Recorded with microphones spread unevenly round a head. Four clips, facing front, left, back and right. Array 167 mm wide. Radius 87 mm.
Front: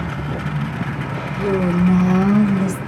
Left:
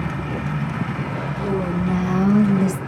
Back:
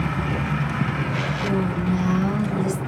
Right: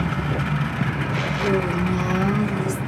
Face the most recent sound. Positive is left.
turn(degrees=55)